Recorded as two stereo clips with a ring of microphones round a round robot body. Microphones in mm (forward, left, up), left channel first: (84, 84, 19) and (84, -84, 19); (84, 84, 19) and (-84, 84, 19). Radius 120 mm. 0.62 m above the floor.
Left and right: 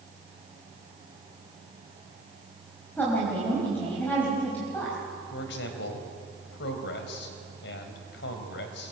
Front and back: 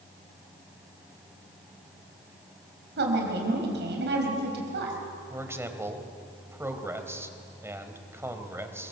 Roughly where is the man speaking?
Left.